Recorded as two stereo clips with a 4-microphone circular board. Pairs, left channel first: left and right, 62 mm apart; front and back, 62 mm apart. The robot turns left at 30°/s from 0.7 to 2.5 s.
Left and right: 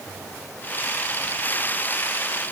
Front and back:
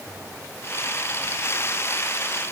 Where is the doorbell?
I don't hear a doorbell.